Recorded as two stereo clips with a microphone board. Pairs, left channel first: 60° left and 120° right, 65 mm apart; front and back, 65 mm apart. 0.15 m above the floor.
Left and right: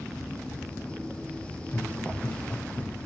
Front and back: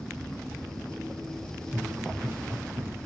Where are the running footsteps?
120° left, 3.5 m; by 3.0 s 130° left, 3.5 m.